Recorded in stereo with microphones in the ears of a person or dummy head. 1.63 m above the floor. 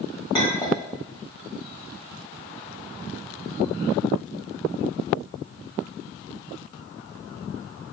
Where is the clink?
15° left (ahead or behind), 1.0 m.